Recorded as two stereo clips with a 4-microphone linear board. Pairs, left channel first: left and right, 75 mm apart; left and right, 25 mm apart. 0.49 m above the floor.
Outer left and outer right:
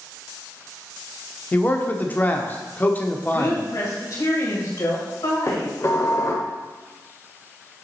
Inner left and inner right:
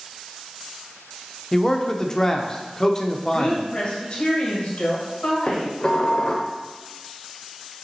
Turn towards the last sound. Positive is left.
turn(degrees=40)  # may be behind; listen again after turning